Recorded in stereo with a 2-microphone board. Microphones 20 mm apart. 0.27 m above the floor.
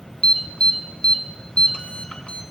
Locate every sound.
0.2 s an alarm: 55° left (ahead or behind), 1.7 m